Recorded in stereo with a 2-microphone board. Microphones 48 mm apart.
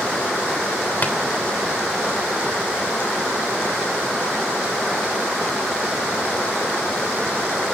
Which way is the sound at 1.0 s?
40° left (ahead or behind).